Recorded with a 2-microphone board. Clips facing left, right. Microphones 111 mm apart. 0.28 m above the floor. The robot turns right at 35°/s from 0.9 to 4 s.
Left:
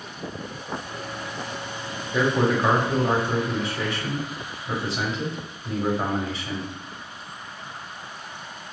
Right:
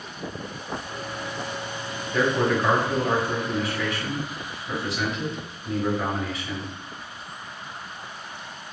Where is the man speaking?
20° left, 1.0 m; by 6.7 s 85° left, 1.0 m.